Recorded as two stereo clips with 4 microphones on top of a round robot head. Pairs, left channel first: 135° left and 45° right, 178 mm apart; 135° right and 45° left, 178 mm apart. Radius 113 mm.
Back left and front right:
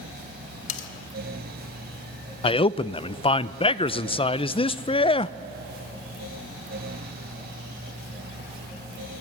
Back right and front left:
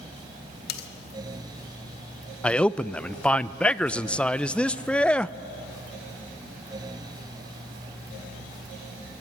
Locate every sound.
0.7 s cutlery clinking: 175° right, 1.3 m
2.4 s a man speaking: 150° left, 0.5 m